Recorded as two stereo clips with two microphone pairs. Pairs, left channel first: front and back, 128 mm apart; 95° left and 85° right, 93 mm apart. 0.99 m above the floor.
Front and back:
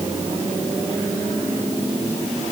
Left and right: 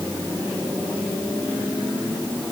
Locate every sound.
Only background noise.